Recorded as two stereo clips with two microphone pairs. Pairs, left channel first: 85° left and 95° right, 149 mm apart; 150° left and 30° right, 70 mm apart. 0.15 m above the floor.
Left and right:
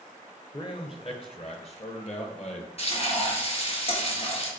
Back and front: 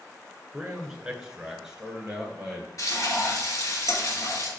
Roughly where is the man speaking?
Ahead left.